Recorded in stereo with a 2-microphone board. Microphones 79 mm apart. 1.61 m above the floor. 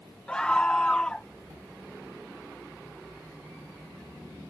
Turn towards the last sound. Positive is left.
turn(degrees=10)  # may be behind; listen again after turning